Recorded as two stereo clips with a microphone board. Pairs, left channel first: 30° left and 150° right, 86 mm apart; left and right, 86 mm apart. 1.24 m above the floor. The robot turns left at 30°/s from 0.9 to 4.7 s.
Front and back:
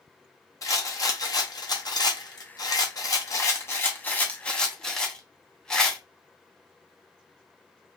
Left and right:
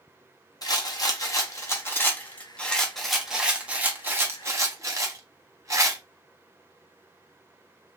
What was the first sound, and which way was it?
A rattle, 65° left.